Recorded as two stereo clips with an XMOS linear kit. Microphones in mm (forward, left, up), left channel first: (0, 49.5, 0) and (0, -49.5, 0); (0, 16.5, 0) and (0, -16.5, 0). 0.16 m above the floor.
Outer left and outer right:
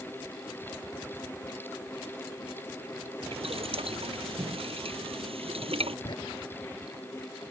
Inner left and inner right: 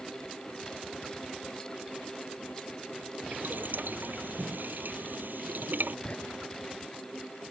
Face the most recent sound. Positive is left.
turn(degrees=55)  # may be behind; listen again after turning